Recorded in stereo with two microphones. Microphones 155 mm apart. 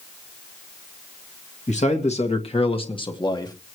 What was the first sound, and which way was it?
A man speaking, 50° left (ahead or behind).